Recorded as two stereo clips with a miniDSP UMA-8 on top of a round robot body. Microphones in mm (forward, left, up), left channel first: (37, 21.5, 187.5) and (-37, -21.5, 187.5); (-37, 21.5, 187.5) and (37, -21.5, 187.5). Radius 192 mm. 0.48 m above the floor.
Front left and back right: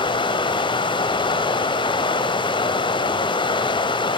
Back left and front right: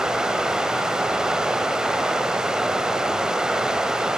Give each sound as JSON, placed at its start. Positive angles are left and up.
{"t": 0.0, "sound": "running water", "azimuth_deg": 55, "distance_m": 1.3}